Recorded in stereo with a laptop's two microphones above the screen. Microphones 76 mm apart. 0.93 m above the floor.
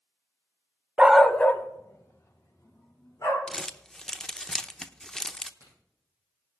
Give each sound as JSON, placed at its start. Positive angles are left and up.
{"t": 1.0, "sound": "a dog barking", "side_deg": -15, "distance_m": 0.6}
{"t": 3.5, "sound": "crumpling", "side_deg": 10, "distance_m": 0.7}
{"t": 5.6, "sound": "a crack", "side_deg": 40, "distance_m": 8.0}